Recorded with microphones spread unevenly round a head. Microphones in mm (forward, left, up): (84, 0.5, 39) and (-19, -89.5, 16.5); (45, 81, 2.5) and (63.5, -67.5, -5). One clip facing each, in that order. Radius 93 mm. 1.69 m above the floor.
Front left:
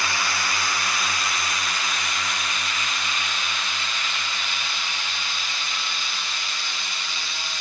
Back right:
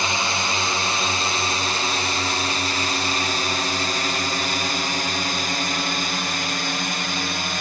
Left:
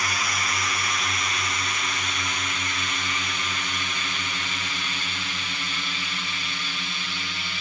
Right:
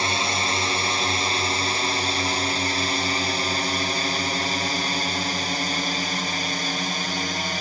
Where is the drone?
115° right; by 7.6 s 130° right.